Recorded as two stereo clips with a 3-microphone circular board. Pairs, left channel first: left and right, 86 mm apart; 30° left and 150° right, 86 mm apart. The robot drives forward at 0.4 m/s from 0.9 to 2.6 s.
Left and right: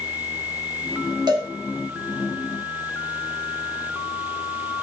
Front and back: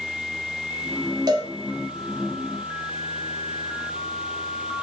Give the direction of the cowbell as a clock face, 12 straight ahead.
4 o'clock.